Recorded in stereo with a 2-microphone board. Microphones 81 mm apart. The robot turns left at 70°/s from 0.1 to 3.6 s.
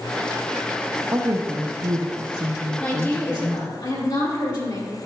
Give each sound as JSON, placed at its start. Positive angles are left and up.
{"t": 1.1, "sound": "a woman speaking", "azimuth_deg": -40, "distance_m": 0.7}
{"t": 2.8, "sound": "a woman speaking", "azimuth_deg": 165, "distance_m": 2.5}